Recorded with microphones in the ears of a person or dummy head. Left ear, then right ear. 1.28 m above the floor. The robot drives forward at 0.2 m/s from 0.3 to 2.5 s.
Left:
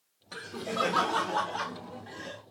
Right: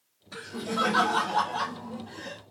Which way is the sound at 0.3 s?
65° left (ahead or behind).